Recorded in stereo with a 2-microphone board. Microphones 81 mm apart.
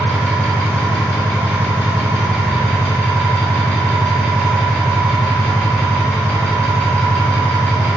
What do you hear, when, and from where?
0.0 s an engine running: 15° left (ahead or behind), 1.8 m